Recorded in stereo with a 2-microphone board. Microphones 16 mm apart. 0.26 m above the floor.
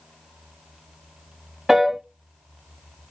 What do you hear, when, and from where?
1.7 s a piano: 25° right (ahead or behind), 1.0 m